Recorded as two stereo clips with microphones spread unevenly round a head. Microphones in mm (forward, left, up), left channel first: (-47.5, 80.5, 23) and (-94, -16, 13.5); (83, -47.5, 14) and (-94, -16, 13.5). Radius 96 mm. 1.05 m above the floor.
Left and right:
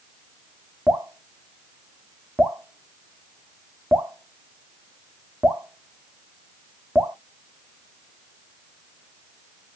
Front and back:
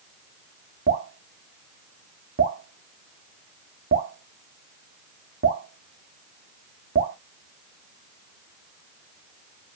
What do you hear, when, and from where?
0.9 s dripping: 165° left, 0.7 m